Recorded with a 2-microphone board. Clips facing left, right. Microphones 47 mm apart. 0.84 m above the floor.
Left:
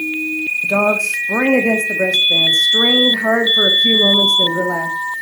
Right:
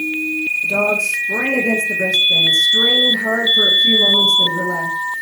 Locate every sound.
0.6 s a woman speaking: 60° left (ahead or behind), 1.9 m